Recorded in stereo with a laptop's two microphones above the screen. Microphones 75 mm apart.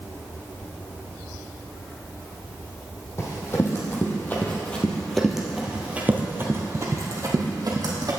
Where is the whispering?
I don't hear whispering.